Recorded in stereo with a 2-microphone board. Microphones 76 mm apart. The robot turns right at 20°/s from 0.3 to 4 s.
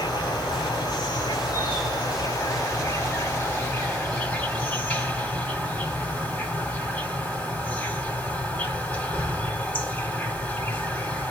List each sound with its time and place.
0.0 s an insect: 80° left, 2.5 m; by 11.3 s 155° left, 2.5 m